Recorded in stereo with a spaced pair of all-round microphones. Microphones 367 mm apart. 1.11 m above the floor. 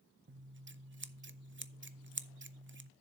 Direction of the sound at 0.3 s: 30° right (ahead or behind).